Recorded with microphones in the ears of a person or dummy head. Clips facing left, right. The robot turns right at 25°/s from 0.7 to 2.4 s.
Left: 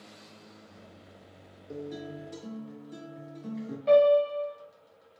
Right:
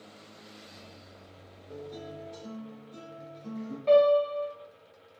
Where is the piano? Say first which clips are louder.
Left 1 dB; centre (ahead or behind), 1.4 m.